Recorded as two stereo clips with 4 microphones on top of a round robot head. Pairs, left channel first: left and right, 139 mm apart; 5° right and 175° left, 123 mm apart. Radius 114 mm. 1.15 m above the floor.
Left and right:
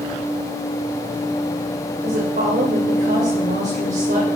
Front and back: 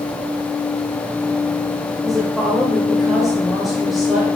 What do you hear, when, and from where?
2.0 s a woman speaking: 95° right, 3 m